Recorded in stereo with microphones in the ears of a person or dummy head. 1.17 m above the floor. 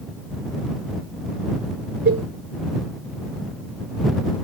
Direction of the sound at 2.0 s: 55° right (ahead or behind).